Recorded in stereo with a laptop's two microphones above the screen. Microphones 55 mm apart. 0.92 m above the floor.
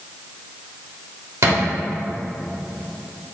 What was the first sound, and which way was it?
A thud, 60° right (ahead or behind).